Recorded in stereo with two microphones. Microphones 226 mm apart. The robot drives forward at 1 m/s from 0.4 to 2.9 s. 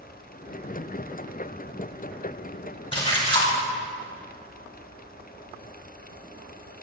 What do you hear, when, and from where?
2.9 s a splash: 25° left (ahead or behind), 4 m